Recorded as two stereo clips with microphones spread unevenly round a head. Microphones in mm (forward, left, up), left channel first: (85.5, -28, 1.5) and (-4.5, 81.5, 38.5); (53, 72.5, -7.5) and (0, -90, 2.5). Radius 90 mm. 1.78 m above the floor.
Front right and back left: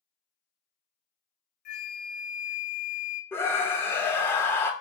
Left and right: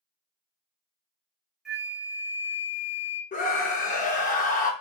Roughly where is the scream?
Ahead left.